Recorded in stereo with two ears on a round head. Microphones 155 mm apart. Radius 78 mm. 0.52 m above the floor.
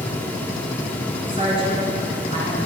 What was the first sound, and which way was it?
A woman speaking, 30° right (ahead or behind).